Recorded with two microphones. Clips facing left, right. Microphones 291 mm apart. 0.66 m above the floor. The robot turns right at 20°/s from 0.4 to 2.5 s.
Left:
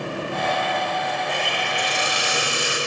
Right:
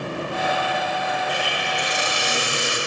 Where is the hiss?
30° left (ahead or behind), 4 m; by 2.8 s 5° left (ahead or behind), 4 m.